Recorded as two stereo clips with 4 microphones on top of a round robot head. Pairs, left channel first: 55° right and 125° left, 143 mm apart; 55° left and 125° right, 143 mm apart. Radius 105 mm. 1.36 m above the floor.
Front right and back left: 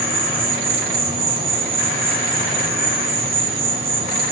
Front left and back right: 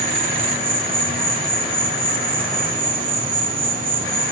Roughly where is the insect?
Behind.